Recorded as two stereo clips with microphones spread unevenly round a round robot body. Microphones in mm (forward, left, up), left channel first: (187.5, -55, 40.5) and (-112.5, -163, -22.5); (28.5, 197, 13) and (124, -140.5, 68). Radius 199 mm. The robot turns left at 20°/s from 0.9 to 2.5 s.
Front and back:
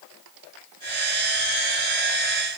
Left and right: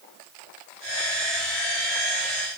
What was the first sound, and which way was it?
Only background noise.